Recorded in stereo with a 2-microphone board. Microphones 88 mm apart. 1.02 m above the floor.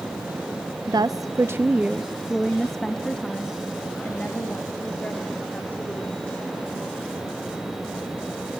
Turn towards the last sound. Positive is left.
turn(degrees=20)  # may be behind; listen again after turning